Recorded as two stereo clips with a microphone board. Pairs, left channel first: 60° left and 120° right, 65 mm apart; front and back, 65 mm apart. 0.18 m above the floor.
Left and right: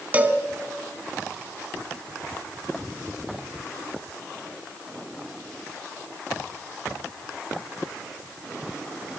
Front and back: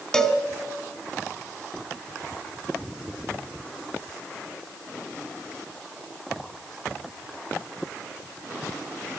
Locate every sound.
0.1 s a cowbell: 75° right, 1.4 m